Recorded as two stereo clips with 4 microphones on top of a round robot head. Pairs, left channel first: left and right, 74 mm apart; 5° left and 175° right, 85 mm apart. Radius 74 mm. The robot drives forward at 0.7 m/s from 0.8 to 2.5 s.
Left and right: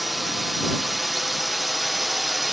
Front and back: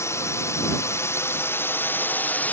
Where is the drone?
Straight ahead.